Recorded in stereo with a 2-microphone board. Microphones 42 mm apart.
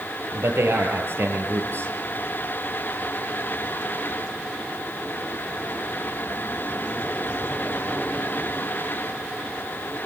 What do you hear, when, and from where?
0.3 s a man speaking: 70° right (ahead or behind), 8 m